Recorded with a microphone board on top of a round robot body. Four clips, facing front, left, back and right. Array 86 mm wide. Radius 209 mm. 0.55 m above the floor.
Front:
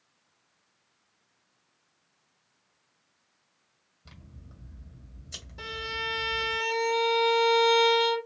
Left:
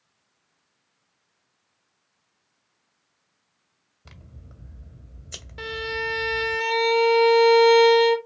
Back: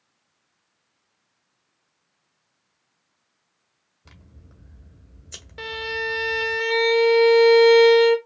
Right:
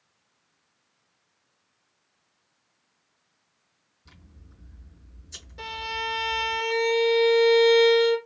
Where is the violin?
150° left, 1.6 m.